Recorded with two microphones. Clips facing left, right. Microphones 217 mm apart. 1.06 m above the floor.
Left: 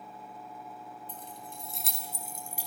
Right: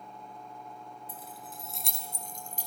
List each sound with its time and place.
1.1 s keys jangling: 10° right (ahead or behind), 4.5 m; by 2.7 s 10° left (ahead or behind), 5.5 m